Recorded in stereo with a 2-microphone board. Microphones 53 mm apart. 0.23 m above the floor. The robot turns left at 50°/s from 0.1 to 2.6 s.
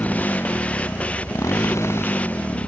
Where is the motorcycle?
30° left (ahead or behind); by 2.7 s 20° left (ahead or behind).